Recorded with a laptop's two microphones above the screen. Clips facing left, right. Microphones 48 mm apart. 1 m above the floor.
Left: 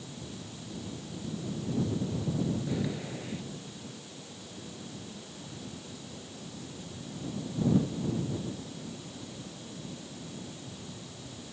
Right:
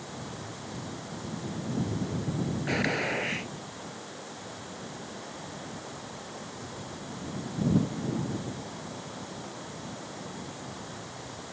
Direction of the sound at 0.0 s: 60° right (ahead or behind).